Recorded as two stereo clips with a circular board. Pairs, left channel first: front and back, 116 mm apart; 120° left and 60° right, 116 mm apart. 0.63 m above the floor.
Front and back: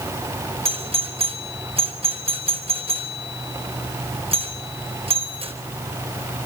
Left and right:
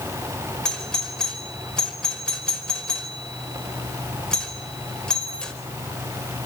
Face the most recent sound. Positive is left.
turn(degrees=-155)